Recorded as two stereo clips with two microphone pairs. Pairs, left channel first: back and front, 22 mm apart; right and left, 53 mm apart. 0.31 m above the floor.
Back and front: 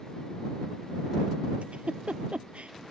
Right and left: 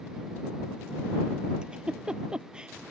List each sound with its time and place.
1.6 s a giggle: 20° left